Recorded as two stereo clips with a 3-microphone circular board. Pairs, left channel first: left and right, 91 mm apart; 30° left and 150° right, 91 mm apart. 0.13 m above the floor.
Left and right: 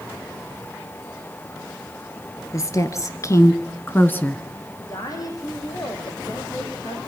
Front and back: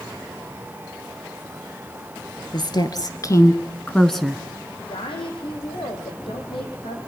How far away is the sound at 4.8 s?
About 4.5 m.